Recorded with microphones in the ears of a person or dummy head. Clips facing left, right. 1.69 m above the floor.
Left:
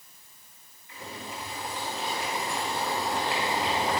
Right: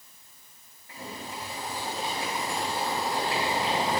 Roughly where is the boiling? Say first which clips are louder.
Right 1 dB; right.